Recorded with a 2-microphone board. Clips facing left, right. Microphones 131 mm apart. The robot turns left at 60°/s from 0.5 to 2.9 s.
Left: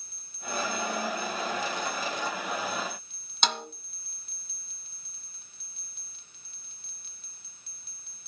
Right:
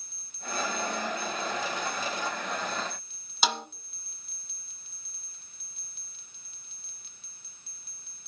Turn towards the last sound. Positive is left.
turn(degrees=-5)  # may be behind; listen again after turning